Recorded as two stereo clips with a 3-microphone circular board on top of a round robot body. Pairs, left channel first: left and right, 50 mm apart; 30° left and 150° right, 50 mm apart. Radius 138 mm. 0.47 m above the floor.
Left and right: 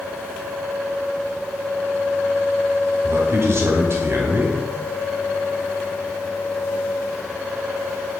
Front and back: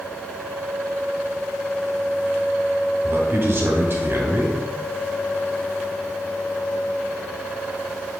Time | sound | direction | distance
3.0 | a man speaking | 110° right | 1.8 m